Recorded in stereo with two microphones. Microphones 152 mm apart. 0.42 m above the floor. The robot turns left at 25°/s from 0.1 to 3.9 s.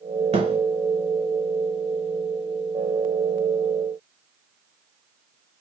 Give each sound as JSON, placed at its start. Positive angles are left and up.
{"t": 0.3, "sound": "a thud", "side_deg": -50, "distance_m": 1.5}